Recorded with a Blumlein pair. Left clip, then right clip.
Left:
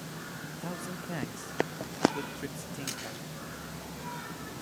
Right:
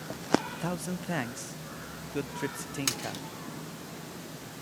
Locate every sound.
0.5 s a man speaking: 20° right, 0.6 m
2.9 s a splash: 60° right, 3.5 m